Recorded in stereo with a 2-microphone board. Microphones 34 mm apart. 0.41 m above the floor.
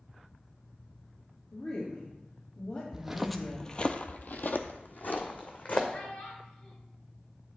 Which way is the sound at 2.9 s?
15° right (ahead or behind).